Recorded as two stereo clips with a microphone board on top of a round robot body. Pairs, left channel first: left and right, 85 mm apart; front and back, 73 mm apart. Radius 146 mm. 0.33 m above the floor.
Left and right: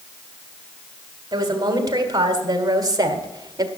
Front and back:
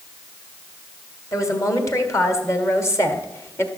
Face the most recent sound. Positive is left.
turn(degrees=-50)